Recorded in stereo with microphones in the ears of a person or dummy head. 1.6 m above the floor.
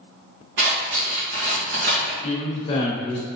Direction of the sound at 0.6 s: 60° right (ahead or behind).